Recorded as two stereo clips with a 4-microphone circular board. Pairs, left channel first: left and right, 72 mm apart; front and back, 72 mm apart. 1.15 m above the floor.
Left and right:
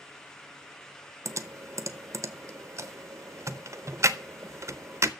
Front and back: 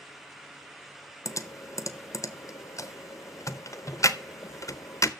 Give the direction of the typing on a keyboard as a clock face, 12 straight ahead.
1 o'clock.